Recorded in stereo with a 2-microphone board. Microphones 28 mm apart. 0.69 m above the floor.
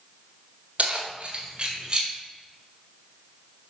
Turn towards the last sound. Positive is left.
turn(degrees=-20)  # may be behind; listen again after turning